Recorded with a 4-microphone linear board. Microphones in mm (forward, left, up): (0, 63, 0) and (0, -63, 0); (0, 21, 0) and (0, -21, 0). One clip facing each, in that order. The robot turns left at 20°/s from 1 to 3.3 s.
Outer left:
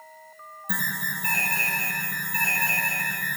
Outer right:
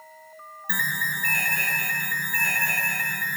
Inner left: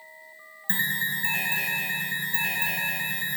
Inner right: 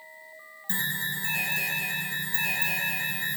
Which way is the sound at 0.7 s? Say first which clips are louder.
Outer right 1 dB, inner left 4 dB; 70° left.